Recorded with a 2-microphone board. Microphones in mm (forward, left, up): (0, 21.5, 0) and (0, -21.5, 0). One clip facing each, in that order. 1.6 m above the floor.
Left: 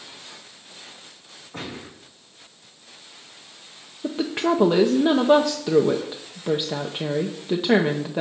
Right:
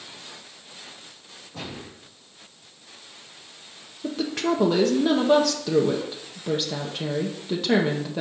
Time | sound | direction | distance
1.5 | a gunshot | 55° left (ahead or behind) | 5 m
4.0 | a woman speaking | 20° left (ahead or behind) | 0.7 m